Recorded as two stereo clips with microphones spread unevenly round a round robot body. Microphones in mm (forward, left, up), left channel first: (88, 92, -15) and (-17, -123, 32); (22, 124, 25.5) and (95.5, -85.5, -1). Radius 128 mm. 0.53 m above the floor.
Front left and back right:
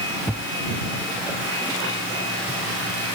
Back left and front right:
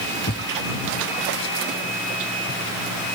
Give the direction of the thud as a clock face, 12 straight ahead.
7 o'clock.